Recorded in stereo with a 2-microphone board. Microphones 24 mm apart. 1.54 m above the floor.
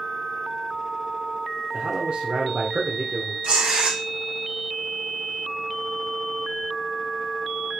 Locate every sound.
1.7 s a man speaking: 55° right (ahead or behind), 1.0 m
3.4 s tearing paper: 80° right, 2.5 m